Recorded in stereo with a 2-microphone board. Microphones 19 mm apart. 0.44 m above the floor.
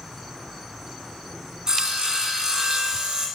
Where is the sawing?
40° right (ahead or behind), 1.9 m.